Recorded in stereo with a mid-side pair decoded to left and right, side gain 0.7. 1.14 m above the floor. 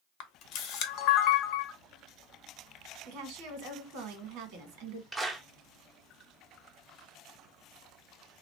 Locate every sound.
0.2 s a camera shutter: 60° left, 0.8 m
3.0 s a woman speaking: 70° right, 1.5 m
5.1 s a clap: 15° right, 0.7 m